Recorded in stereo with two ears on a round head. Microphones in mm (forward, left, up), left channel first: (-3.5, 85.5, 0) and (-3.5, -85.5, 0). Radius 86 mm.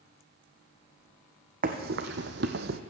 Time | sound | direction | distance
1.6 | running footsteps | 45° right (ahead or behind) | 1.2 m